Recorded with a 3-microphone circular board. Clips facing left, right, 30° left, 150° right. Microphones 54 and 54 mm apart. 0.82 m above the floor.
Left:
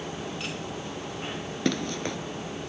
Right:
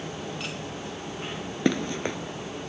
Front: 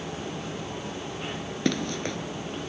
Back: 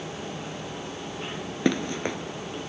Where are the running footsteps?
115° right, 0.8 m.